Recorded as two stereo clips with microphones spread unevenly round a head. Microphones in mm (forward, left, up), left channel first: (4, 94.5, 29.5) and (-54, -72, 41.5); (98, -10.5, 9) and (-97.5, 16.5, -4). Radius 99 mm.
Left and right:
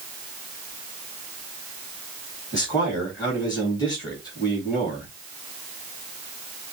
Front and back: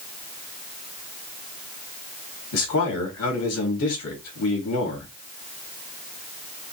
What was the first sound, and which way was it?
A man speaking, straight ahead.